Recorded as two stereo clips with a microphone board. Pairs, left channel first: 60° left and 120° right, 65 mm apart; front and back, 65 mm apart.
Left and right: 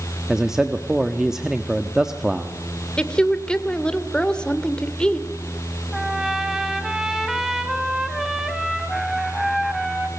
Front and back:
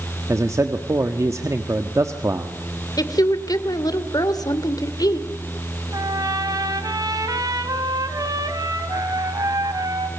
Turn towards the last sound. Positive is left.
turn(degrees=155)